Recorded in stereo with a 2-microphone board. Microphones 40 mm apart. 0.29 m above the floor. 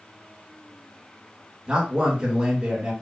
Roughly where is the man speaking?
Right.